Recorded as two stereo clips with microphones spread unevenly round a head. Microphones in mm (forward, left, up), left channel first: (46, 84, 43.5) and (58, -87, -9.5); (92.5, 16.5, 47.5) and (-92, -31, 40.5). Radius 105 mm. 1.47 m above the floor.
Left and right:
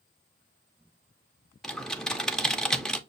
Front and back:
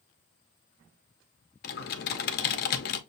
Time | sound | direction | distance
1.6 | typing on a keyboard | 25° left | 0.5 m